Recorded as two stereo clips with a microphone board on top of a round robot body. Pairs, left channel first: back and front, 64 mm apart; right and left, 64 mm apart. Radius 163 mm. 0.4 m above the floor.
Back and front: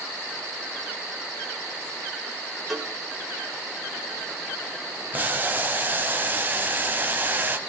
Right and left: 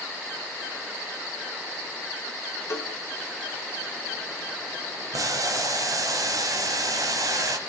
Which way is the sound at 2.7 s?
90° right.